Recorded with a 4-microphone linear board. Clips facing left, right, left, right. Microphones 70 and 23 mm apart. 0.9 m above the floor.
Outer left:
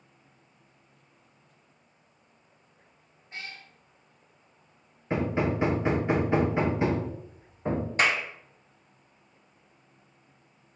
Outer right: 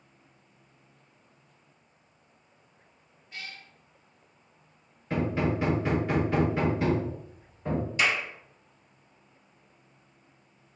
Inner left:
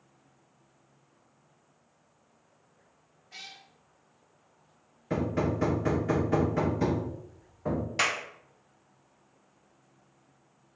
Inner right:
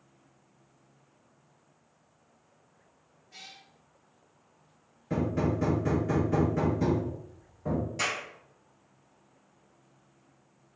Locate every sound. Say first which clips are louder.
3.3 s a cat meowing: outer left 1 dB, inner left 3 dB; 35° left (ahead or behind), 0.6 m
5.1 s hammering: outer left 1 dB, even; 20° left (ahead or behind), 0.5 m
8.0 s a clap: outer left 2 dB, inner left 5 dB; 45° left (ahead or behind), 0.6 m